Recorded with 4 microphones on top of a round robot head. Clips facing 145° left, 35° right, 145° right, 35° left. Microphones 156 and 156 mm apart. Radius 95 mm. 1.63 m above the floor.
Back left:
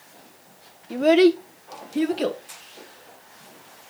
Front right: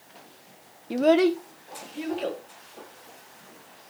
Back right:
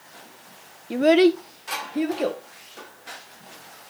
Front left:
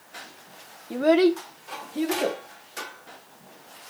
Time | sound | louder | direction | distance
0.9 | a child speaking | back left 4 dB, back right 3 dB | 85° right | 0.7 m